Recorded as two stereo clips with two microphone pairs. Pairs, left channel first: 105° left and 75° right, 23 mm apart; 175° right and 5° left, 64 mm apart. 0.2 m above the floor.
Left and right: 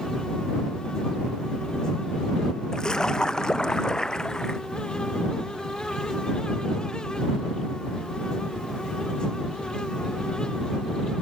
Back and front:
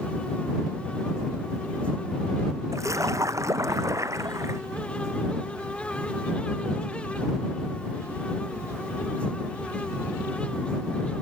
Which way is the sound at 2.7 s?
40° left.